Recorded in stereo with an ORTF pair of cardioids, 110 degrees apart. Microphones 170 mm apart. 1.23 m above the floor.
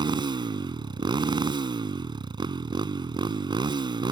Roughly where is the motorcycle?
Ahead right.